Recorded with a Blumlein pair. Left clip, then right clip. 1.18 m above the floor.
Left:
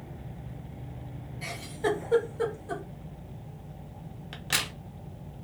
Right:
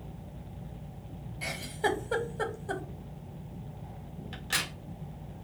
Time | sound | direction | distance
1.4 | a giggle | 20° right | 0.7 m
4.3 | a crack | 20° left | 0.8 m